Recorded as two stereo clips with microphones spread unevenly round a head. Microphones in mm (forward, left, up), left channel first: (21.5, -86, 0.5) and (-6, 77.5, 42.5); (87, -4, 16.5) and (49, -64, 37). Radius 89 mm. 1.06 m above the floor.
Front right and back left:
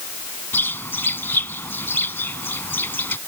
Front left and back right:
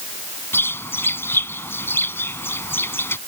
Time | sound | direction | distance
0.5 | a bird | straight ahead | ?